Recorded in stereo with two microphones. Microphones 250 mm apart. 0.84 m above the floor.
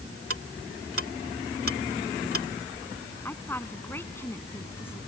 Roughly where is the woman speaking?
Centre.